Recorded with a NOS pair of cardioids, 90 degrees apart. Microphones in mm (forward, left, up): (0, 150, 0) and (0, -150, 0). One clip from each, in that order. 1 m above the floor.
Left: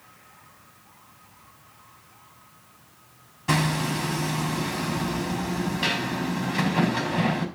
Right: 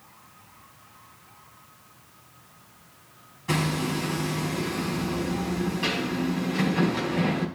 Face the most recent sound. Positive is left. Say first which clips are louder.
# left 2 dB
turn(degrees=50)